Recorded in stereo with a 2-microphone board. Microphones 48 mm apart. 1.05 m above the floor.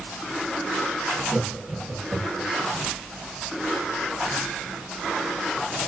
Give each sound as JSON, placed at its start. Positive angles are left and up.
{"t": 1.3, "sound": "laughter", "side_deg": -5, "distance_m": 0.7}